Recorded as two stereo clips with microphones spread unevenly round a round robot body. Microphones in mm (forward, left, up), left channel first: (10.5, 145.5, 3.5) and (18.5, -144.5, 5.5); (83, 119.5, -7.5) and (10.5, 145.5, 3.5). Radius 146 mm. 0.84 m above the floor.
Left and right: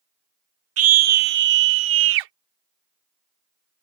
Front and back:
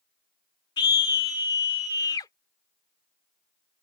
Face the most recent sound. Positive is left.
turn(degrees=-80)